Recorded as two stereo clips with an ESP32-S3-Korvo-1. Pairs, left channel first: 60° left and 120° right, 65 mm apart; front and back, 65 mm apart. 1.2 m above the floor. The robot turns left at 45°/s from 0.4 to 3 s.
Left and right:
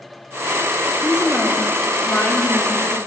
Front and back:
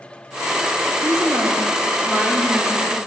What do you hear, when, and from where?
1.0 s a woman speaking: 170° left, 3 m; by 3.0 s 80° left, 3 m